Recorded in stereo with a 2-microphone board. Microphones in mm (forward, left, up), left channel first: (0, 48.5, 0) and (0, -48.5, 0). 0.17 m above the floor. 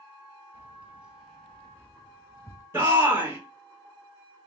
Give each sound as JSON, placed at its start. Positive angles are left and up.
{"t": 0.5, "sound": "keys jangling", "side_deg": -20, "distance_m": 1.2}
{"t": 2.7, "sound": "a shout", "side_deg": -25, "distance_m": 1.6}